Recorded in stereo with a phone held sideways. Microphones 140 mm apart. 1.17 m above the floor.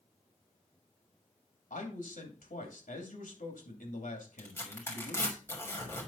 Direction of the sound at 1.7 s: 80° left.